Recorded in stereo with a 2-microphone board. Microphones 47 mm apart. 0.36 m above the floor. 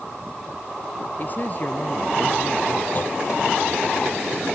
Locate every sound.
1.2 s a man speaking: 40° left (ahead or behind)
3.0 s a clunk: 45° left (ahead or behind)